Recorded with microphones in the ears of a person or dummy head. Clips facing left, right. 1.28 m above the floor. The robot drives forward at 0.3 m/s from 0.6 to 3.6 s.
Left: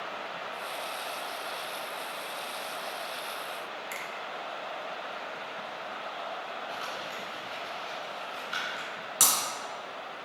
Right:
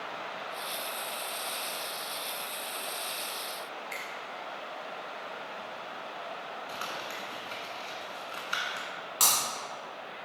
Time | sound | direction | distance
3.9 | a finger snap | 65° left (ahead or behind) | 1.6 m
6.7 | crumpling | 40° right (ahead or behind) | 1.6 m
9.2 | breaking glass | 25° left (ahead or behind) | 1.8 m